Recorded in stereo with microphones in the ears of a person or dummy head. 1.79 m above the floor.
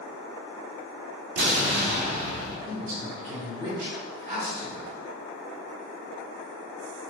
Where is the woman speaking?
40° right (ahead or behind), 1.3 m.